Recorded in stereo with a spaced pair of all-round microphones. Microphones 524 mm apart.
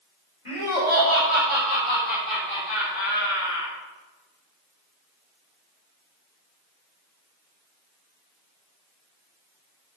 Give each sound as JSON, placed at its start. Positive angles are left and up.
{"t": 0.5, "sound": "laughter", "side_deg": 80, "distance_m": 5.5}